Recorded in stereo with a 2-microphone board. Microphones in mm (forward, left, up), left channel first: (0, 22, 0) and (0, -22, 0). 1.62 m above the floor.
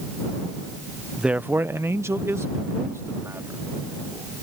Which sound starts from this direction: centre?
A man speaking, at 1.2 s.